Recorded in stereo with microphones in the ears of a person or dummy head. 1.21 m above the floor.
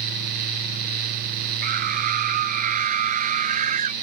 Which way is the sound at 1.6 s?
45° right (ahead or behind).